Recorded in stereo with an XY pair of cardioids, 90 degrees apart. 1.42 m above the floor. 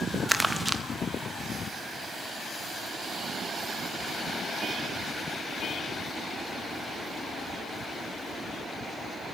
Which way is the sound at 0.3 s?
10° right.